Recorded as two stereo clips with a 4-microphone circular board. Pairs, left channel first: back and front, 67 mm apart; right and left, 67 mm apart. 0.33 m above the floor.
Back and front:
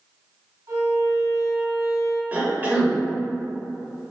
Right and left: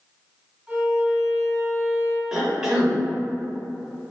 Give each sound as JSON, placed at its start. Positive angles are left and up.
{"t": 0.7, "sound": "a violin", "azimuth_deg": 15, "distance_m": 1.3}
{"t": 2.3, "sound": "a cough", "azimuth_deg": 15, "distance_m": 0.9}